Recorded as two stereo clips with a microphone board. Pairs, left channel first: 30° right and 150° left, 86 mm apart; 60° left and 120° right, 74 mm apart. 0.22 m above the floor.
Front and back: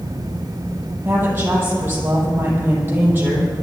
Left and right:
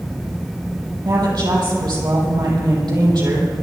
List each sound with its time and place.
1.1 s a woman speaking: 145° right, 6 m